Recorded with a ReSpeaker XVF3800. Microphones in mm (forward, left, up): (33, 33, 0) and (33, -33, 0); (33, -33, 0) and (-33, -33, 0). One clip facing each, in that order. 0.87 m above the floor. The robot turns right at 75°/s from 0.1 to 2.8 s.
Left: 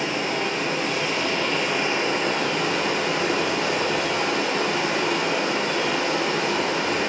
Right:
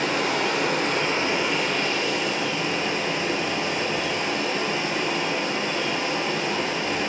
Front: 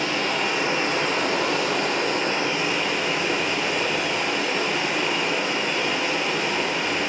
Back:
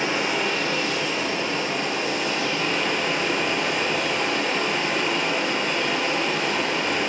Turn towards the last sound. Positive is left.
turn(degrees=90)